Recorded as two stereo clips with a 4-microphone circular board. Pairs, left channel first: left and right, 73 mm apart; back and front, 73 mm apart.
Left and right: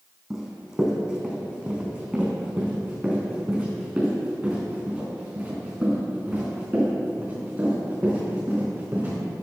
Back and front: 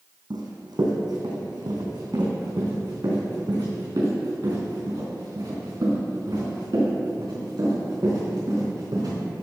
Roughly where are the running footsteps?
Ahead.